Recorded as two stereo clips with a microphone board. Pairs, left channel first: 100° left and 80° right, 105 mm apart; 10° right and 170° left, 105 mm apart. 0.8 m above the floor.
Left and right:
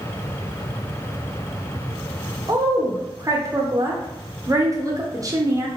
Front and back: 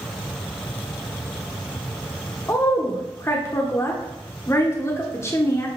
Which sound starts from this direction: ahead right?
A woman speaking, at 2.5 s.